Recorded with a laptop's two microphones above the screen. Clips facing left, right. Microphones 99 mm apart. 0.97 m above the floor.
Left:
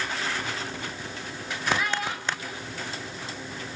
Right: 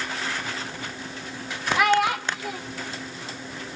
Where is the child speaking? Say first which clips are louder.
Right 9 dB; 70° right (ahead or behind), 1.1 m.